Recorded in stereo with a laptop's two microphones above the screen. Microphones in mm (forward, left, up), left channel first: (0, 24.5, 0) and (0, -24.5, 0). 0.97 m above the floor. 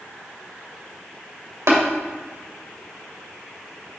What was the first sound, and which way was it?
Tapping, 75° right (ahead or behind).